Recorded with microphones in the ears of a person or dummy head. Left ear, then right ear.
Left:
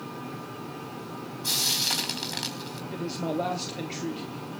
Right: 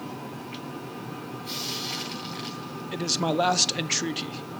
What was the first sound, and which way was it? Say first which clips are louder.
Frying: left 7 dB; 55° left (ahead or behind).